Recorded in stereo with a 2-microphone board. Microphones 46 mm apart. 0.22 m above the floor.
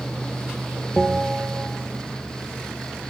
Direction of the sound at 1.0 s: 5° right (ahead or behind).